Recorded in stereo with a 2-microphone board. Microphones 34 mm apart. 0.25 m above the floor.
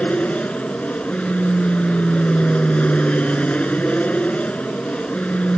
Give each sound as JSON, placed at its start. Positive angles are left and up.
{"t": 0.0, "sound": "an aircraft", "side_deg": 40}